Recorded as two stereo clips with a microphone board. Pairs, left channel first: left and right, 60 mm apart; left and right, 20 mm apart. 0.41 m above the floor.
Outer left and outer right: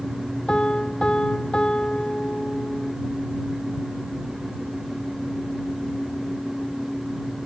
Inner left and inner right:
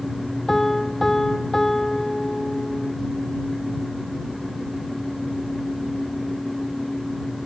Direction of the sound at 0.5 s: 15° left (ahead or behind).